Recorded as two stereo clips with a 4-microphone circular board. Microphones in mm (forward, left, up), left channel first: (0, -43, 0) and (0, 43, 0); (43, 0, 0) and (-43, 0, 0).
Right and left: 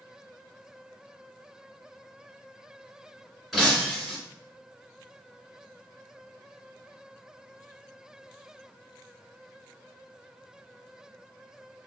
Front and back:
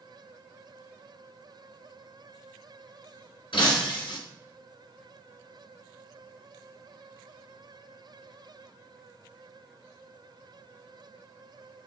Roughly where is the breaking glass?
Ahead.